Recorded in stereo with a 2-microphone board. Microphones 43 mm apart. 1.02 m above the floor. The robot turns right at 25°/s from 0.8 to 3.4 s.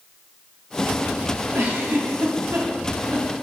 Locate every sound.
1.5 s a giggle: 70° right (ahead or behind), 1.7 m; by 3.3 s 65° right (ahead or behind), 1.7 m